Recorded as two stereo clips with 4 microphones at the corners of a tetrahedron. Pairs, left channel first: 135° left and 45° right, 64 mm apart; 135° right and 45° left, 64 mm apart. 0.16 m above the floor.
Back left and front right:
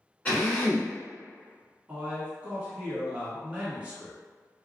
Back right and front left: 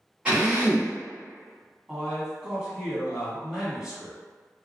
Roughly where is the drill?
Left.